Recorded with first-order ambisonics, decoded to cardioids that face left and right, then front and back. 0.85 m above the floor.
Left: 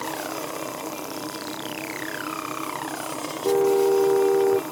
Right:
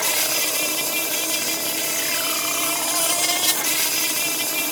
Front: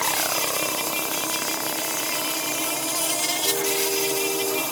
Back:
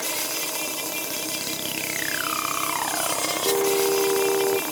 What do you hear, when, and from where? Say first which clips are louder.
0.0 s an insect: right 8 dB, front 4 dB; 80° right
3.4 s a car horn: left 3 dB, back 6 dB; 110° left